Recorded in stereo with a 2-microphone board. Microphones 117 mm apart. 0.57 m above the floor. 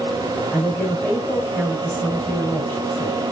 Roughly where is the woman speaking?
Centre.